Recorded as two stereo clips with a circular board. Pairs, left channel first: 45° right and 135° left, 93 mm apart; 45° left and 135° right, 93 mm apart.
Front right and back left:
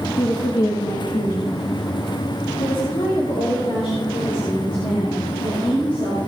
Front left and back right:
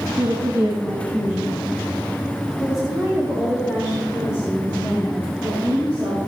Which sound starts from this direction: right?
A woman speaking, at 0.2 s.